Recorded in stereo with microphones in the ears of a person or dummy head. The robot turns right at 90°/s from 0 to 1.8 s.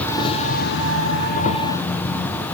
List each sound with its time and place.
0.0 s an insect: 15° left, 0.8 m; by 2.6 s straight behind, 0.8 m